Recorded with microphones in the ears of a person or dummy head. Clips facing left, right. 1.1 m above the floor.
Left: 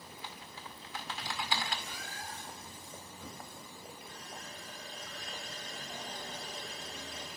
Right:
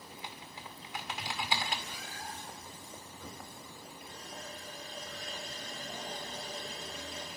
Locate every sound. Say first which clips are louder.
0.1 s typing on a keyboard: right 1 dB; 20° right (ahead or behind), 2 m
1.9 s a cat meowing: right 1 dB; 30° right (ahead or behind), 4.5 m
4.1 s a running tap: right 2 dB; 35° right (ahead or behind), 8.5 m